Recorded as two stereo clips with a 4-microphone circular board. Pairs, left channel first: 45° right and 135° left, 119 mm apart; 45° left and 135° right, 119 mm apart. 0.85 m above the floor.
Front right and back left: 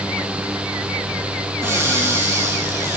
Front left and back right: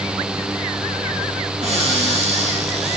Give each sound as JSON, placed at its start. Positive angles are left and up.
{"t": 1.6, "sound": "a cupboard door", "azimuth_deg": -160, "distance_m": 4.5}